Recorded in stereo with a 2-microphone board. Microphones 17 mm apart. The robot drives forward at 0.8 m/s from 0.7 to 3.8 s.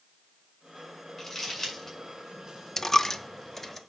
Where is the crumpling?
20° left (ahead or behind), 7 m.